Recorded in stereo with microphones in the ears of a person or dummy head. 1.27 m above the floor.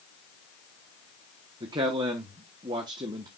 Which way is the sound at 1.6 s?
25° right (ahead or behind).